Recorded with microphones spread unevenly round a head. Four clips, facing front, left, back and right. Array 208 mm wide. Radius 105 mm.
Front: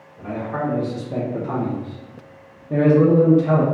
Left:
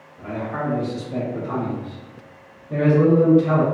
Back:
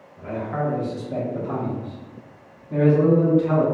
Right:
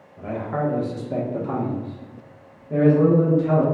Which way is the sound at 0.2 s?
100° right.